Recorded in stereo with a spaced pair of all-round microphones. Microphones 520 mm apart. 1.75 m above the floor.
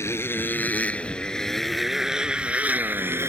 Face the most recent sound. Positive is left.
turn(degrees=-5)  # may be behind; listen again after turning